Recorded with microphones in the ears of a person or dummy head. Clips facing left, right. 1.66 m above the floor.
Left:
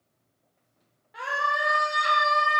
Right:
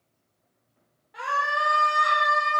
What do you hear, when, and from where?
1.1 s a scream: 5° left (ahead or behind), 1.5 m; by 2.6 s 45° left (ahead or behind), 1.7 m